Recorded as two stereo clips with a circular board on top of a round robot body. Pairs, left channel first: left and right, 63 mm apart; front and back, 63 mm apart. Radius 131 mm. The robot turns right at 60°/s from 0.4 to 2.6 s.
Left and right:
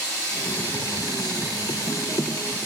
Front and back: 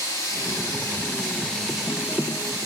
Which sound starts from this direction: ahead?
Running water, at 0.0 s.